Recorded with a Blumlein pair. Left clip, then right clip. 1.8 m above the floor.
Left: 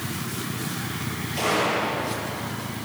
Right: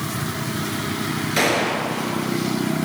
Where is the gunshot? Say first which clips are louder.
Right 3 dB; 40° right, 6.5 m.